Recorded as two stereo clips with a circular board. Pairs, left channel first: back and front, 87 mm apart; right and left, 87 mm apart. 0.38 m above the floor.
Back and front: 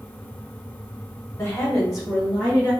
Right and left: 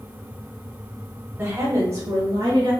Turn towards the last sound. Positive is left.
turn(degrees=70)